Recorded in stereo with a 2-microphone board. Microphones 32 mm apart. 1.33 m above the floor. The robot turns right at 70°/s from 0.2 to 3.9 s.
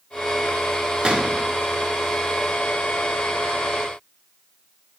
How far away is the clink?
No clink in this recording.